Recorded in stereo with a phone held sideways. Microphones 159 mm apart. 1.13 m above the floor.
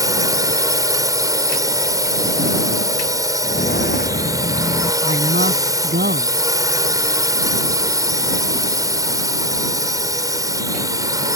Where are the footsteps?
75° left (ahead or behind).